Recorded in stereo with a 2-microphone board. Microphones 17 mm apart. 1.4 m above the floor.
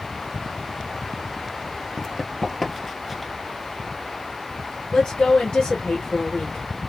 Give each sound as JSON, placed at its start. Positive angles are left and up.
{"t": 2.0, "sound": "running footsteps", "side_deg": 20, "distance_m": 1.4}
{"t": 4.9, "sound": "a woman speaking", "side_deg": 75, "distance_m": 2.0}